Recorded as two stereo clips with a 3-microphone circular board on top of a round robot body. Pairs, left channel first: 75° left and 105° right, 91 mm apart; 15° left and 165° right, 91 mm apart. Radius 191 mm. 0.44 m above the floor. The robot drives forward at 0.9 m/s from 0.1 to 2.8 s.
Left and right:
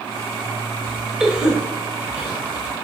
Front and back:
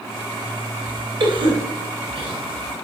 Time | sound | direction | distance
1.2 | a cough | 170° left | 2.5 m